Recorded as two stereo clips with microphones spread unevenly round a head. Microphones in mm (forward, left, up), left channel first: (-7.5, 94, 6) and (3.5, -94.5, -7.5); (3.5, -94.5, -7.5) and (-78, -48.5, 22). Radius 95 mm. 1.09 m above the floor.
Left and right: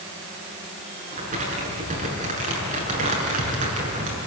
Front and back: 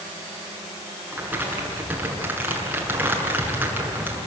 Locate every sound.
1.1 s crumpling: 140° right, 7 m